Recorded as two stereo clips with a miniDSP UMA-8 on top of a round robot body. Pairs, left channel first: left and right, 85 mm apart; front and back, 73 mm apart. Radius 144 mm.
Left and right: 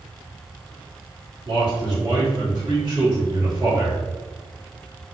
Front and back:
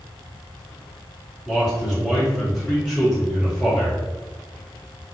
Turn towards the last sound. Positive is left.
turn(degrees=-95)